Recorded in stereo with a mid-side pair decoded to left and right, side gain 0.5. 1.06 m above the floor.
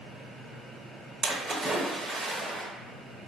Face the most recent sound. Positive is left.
turn(degrees=-40)